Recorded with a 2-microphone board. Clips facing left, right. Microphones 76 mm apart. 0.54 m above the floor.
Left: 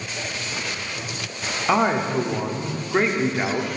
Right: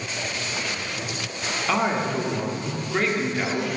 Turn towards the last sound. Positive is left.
turn(degrees=20)  # may be behind; listen again after turning